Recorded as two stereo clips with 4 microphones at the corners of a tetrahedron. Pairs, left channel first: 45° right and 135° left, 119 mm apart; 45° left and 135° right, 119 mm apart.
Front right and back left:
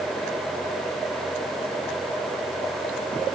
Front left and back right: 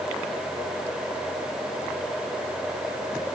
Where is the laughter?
No laughter in this recording.